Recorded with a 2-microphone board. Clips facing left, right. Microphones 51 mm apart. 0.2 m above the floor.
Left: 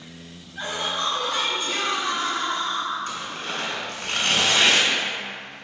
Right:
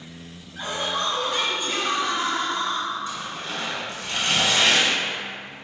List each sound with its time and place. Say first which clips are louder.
0.6 s laughter: right 1 dB; 5° right (ahead or behind), 1.4 m; by 3.0 s 40° right (ahead or behind), 1.2 m
3.1 s tearing paper: left 1 dB; 60° left (ahead or behind), 0.7 m